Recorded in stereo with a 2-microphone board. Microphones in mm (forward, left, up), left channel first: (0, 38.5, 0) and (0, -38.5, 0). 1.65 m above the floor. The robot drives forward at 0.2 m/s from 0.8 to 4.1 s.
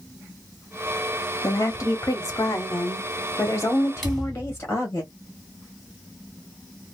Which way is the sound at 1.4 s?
50° left (ahead or behind).